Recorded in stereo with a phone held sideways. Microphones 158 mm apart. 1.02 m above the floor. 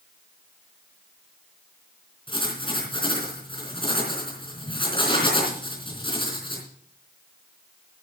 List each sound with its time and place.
2.3 s writing: 30° left (ahead or behind), 3.5 m